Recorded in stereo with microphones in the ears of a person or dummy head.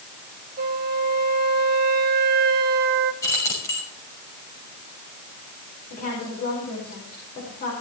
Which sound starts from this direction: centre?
Keys jangling, at 3.2 s.